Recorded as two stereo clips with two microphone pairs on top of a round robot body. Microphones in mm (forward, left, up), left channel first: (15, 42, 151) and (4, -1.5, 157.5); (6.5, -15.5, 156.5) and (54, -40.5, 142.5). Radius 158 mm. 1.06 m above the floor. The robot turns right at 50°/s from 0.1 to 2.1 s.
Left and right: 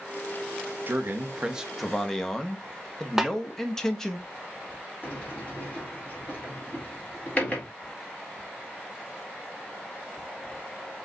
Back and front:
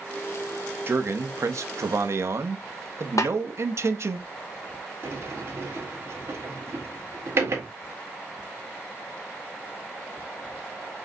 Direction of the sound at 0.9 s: 65° right.